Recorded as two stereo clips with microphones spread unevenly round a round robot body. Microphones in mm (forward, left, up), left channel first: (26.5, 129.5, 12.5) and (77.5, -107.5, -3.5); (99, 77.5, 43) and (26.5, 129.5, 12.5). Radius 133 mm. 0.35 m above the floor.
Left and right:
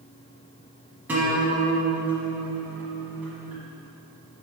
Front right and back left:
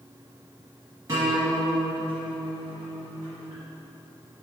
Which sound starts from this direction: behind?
A guitar, at 1.1 s.